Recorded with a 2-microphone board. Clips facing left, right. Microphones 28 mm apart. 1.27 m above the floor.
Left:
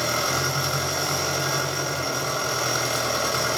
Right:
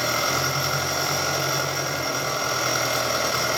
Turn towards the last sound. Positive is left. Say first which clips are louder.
# right 1 dB
turn(degrees=-10)  # may be behind; listen again after turning